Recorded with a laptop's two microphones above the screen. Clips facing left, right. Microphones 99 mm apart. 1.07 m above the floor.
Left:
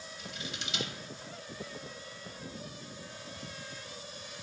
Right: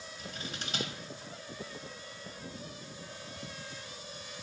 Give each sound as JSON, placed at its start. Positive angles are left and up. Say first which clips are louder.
{"t": 0.2, "sound": "scissors", "louder": "right 1 dB", "side_deg": -40, "distance_m": 0.7}